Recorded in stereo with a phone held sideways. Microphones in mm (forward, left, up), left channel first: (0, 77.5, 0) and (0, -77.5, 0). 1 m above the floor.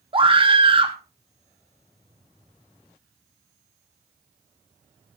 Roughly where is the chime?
No chime in this recording.